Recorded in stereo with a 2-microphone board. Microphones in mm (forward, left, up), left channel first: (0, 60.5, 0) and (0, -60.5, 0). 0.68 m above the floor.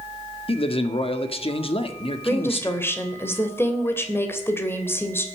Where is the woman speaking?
15° left (ahead or behind), 2.5 m.